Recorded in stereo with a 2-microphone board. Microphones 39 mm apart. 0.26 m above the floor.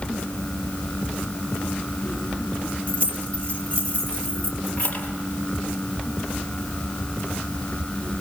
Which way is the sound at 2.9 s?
35° left (ahead or behind).